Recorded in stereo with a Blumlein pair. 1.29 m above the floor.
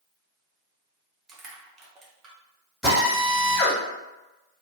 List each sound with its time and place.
1.3 s crushing: 20° right, 0.9 m
2.8 s a drill: straight ahead, 1.7 m